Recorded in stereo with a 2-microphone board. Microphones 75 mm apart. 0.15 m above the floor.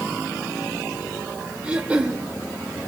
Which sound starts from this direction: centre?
Throat clearing, at 1.6 s.